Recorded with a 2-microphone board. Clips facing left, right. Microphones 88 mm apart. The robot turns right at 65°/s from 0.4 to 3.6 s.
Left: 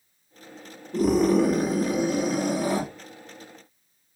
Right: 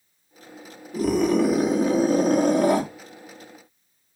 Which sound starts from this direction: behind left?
A scream, at 0.9 s.